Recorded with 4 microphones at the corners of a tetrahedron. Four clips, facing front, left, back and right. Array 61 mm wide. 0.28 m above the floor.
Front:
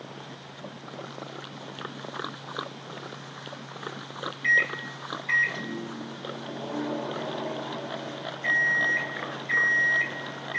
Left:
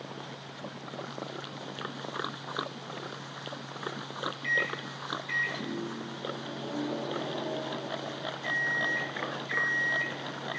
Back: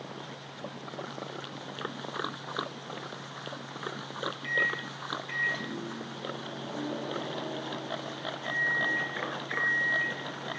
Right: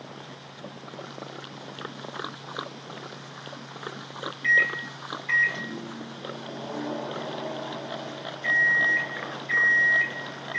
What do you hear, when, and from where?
4.4 s a microwave: 45° right, 1.8 m